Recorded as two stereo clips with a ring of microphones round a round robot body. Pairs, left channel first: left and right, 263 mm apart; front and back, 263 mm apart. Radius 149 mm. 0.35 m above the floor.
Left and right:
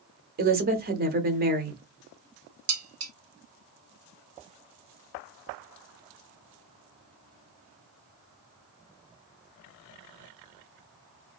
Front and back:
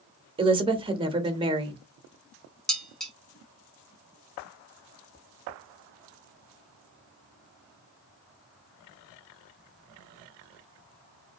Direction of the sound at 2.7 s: 90° right.